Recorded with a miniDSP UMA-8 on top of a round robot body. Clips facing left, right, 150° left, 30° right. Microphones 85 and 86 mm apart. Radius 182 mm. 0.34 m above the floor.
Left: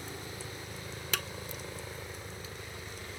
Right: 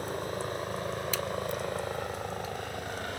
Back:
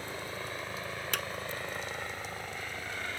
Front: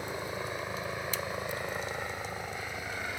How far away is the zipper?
No zipper in this recording.